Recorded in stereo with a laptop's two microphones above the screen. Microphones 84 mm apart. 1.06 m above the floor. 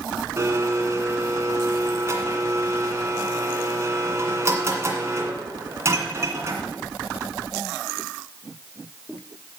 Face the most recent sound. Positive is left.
turn(degrees=-30)  # may be behind; listen again after turning